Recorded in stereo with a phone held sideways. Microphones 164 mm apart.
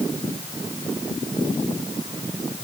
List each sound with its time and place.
Only background noise.